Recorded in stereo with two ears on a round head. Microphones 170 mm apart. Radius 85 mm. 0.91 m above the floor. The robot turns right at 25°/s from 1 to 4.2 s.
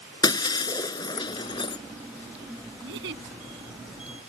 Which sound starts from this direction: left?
Breaking glass, at 0.2 s.